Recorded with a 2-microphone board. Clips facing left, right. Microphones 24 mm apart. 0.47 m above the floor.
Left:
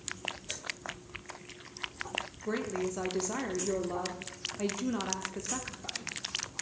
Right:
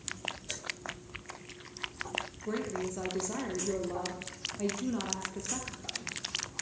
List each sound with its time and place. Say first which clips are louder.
2.4 s a woman speaking: left 3 dB; 20° left (ahead or behind), 0.9 m